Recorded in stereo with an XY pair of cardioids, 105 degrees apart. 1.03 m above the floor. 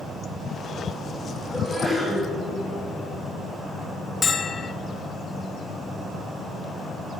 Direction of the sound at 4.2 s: 35° left.